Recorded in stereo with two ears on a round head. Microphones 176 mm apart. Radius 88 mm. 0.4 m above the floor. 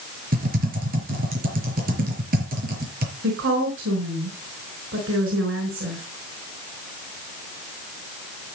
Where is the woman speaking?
70° right (ahead or behind), 5 m.